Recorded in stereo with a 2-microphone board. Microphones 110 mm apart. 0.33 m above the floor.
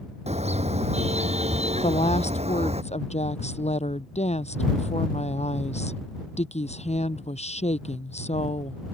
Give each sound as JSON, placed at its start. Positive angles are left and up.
{"t": 0.3, "sound": "a car horn", "side_deg": -75}
{"t": 1.8, "sound": "a woman speaking", "side_deg": 80}